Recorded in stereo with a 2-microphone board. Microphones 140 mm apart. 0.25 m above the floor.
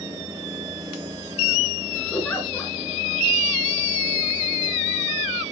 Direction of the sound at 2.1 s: 10° left (ahead or behind).